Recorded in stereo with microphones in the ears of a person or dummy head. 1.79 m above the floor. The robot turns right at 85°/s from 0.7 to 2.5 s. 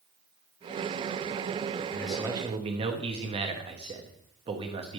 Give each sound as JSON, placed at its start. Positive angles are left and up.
{"t": 1.9, "sound": "a man speaking", "azimuth_deg": 165, "distance_m": 1.2}